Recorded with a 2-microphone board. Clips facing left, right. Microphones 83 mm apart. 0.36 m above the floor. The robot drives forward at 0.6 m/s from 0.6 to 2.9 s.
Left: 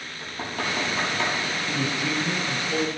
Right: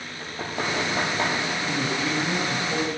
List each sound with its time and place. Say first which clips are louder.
0.2 s knocking: right 1 dB; 40° right (ahead or behind), 6 m; by 1.4 s 45° right (ahead or behind), 5.5 m
1.7 s a man speaking: even; 35° right (ahead or behind), 2.5 m; by 2.9 s 30° right (ahead or behind), 3 m